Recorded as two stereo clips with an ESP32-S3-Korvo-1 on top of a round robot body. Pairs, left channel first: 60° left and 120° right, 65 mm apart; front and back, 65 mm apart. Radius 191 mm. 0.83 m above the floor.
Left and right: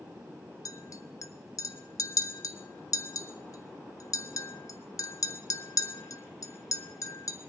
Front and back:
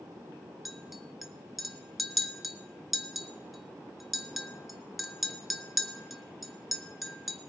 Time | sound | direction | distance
0.7 | a clink | 90° left | 0.8 m